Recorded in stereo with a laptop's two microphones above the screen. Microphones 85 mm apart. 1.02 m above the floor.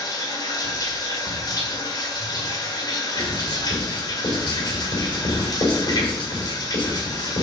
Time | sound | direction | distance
0.0 | running water | 50° left (ahead or behind) | 1.9 m
3.1 | writing | 75° left (ahead or behind) | 4.5 m